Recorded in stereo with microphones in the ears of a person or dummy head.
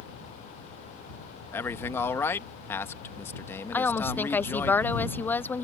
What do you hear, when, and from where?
1.5 s a man speaking: 10° left (ahead or behind)
3.7 s a woman speaking: 10° left (ahead or behind)